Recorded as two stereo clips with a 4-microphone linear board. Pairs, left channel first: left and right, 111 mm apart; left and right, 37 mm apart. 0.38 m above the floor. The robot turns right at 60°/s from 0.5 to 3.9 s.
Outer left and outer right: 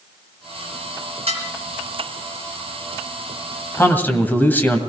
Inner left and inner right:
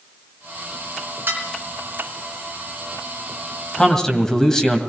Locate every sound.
1.3 s dishes clattering: 70° right (ahead or behind), 3 m; by 1.4 s 75° right (ahead or behind), 3 m
3.8 s a man speaking: 25° left (ahead or behind), 2 m; by 4.8 s 15° left (ahead or behind), 2 m